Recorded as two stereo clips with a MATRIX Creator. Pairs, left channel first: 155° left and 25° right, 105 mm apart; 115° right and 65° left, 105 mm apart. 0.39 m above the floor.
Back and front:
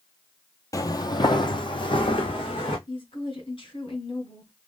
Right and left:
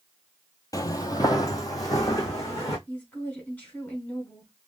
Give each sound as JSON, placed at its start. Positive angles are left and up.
{"t": 0.7, "sound": "footsteps", "azimuth_deg": -155, "distance_m": 0.5}
{"t": 2.9, "sound": "a woman speaking", "azimuth_deg": 175, "distance_m": 1.8}